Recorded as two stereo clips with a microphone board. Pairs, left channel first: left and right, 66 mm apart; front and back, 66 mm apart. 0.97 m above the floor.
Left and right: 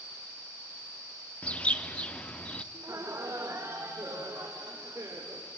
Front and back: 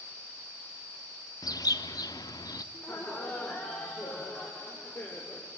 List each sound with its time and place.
1.4 s a bird: 15° left, 1.0 m
2.7 s laughter: 50° right, 3.5 m